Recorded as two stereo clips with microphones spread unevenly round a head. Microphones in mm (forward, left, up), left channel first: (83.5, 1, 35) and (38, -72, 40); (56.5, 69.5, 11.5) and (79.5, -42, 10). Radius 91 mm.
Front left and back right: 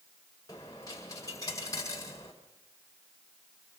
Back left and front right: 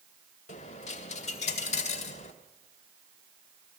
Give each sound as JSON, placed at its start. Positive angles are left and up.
{"t": 0.5, "sound": "a dropped coin", "azimuth_deg": 130, "distance_m": 1.8}